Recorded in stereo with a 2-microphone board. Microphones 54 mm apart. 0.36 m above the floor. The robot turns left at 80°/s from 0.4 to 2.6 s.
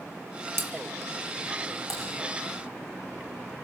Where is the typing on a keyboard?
5° left (ahead or behind), 8 m; by 2.0 s 20° left (ahead or behind), 8 m.